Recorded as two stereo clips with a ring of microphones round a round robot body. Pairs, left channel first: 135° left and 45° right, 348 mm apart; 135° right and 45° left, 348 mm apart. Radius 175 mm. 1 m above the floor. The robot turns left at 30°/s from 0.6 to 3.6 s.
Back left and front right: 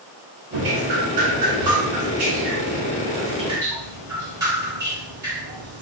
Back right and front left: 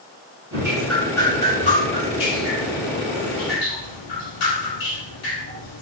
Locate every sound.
0.5 s dripping: 35° right, 2 m; by 5.8 s 125° right, 2 m